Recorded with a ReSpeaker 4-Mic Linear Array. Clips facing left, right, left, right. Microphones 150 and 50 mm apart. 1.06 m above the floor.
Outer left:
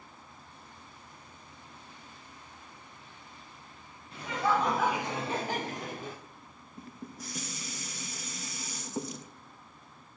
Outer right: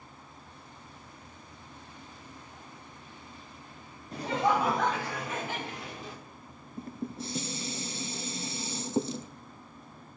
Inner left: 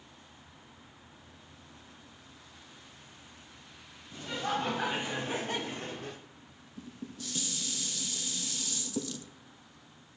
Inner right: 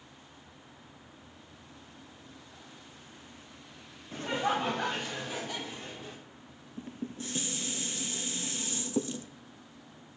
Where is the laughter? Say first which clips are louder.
Outer right 2 dB, inner right 3 dB; 40° right (ahead or behind), 1.2 m; by 6.2 s 50° left (ahead or behind), 2.5 m.